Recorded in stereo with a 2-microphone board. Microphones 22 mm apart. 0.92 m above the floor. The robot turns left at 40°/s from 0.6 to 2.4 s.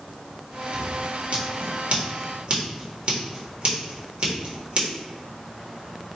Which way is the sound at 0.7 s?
60° right (ahead or behind).